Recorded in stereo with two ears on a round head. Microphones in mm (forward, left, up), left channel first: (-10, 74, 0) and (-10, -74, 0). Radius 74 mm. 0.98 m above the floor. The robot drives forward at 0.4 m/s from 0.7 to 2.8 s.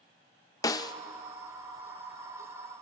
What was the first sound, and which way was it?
A snare drum, 20° left (ahead or behind).